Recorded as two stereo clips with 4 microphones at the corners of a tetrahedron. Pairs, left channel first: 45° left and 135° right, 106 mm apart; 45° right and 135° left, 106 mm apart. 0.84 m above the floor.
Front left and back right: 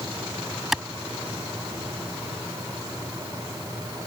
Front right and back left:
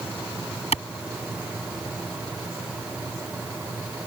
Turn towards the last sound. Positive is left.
turn(degrees=-50)